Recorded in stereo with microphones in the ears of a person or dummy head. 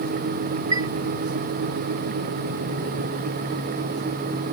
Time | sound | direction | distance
0.7 | a chime | 25° right (ahead or behind) | ?